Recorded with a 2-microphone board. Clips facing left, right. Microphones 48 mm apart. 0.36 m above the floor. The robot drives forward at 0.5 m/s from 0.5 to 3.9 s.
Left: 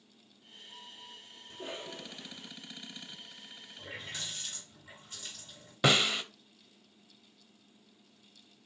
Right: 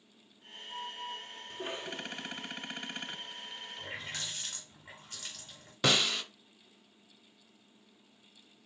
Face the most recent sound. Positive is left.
turn(degrees=10)  # may be behind; listen again after turning